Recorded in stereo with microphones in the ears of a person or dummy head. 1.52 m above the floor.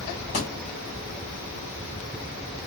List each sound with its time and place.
0.3 s a thud: 20° left (ahead or behind), 0.9 m